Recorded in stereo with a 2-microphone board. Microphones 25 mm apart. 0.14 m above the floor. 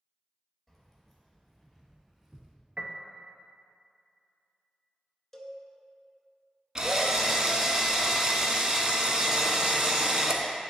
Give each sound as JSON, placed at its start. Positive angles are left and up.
{"t": 0.7, "sound": "keys jangling", "side_deg": 0, "distance_m": 2.0}
{"t": 2.8, "sound": "a piano", "side_deg": -60, "distance_m": 0.6}
{"t": 5.3, "sound": "a cowbell", "side_deg": 10, "distance_m": 0.8}
{"t": 6.8, "sound": "a drill", "side_deg": -30, "distance_m": 0.6}